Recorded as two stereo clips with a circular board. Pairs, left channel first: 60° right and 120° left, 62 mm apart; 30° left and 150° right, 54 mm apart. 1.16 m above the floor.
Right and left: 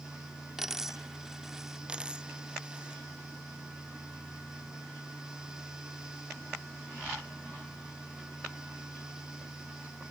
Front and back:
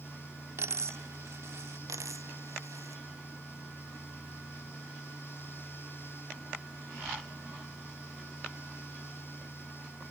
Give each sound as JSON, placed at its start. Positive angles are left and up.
{"t": 0.6, "sound": "a dropped coin", "azimuth_deg": -155}
{"t": 1.9, "sound": "a dropped coin", "azimuth_deg": -165}